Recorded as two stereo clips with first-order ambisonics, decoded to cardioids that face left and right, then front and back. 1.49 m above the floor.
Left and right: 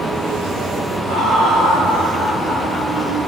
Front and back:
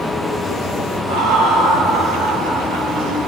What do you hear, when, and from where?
1.1 s laughter: 140° right, 2 m; by 3.1 s 170° left, 3.5 m